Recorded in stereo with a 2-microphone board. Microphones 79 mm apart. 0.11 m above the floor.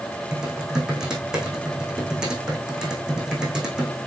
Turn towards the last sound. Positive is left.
turn(degrees=-10)  # may be behind; listen again after turning